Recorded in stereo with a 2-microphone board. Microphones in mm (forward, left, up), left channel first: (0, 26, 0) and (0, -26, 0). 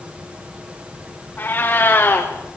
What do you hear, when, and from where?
1.4 s a cat meowing: 40° left (ahead or behind), 4.5 m